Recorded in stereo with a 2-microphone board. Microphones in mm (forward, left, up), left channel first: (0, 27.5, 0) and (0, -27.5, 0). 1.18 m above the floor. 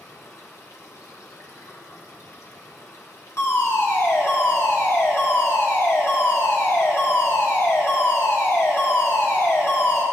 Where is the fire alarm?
60° left (ahead or behind), 2 m.